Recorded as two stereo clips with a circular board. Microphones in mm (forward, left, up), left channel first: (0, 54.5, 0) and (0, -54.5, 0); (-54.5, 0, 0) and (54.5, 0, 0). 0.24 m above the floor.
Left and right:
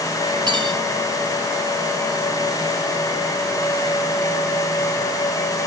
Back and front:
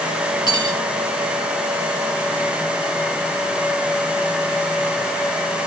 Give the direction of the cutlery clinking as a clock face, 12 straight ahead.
5 o'clock.